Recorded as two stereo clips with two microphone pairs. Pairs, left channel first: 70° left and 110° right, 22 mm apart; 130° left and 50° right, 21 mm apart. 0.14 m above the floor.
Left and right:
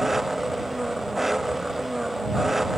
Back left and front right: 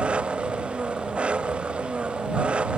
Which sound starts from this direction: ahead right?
An engine running, at 0.0 s.